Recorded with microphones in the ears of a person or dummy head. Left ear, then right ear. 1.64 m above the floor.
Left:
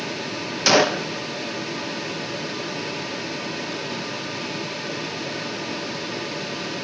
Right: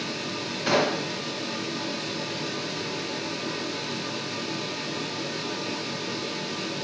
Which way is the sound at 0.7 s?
80° left.